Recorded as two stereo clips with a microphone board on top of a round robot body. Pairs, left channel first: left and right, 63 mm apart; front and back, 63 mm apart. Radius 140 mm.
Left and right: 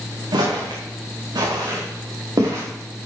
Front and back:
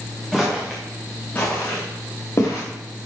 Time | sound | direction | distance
0.3 | footsteps | 85° right | 3.5 m